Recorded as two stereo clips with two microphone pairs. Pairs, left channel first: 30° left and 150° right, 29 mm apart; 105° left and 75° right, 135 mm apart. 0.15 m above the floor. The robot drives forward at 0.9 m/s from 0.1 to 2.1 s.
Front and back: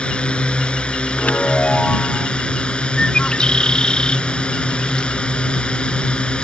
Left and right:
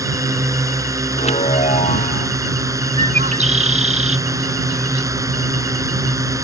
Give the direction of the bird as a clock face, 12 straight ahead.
1 o'clock.